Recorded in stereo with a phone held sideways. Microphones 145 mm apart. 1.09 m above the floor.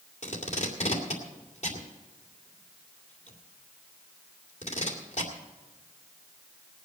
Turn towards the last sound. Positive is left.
turn(degrees=50)  # may be behind; listen again after turning